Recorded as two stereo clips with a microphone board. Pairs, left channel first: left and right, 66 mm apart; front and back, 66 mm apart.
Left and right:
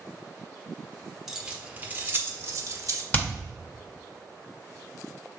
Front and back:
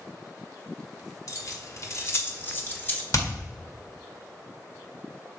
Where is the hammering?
25° left, 1.5 m.